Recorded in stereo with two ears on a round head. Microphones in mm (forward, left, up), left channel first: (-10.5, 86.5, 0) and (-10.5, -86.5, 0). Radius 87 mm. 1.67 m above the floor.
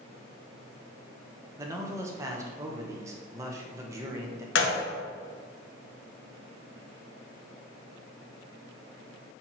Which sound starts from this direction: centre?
A man speaking, at 1.6 s.